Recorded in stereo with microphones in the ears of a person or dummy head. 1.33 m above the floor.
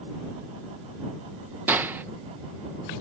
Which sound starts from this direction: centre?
A gunshot, at 1.7 s.